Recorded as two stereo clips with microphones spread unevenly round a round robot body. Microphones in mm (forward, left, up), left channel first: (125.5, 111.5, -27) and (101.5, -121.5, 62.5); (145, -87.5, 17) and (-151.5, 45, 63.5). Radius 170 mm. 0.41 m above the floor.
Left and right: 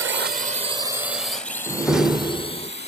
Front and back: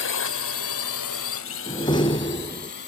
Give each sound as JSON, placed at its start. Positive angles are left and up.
{"t": 0.0, "sound": "a drone", "azimuth_deg": -55}
{"t": 1.7, "sound": "a door slam", "azimuth_deg": 25}